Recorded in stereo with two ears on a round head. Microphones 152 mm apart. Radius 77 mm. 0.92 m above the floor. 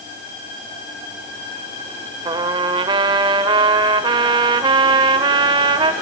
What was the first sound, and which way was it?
A trumpet, 30° right (ahead or behind).